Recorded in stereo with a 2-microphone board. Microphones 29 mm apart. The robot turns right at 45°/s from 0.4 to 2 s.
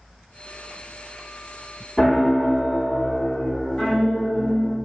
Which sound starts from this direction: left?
A piano, at 2.0 s.